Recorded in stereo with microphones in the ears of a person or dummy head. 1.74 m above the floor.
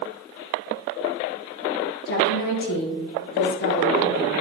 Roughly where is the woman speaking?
Left.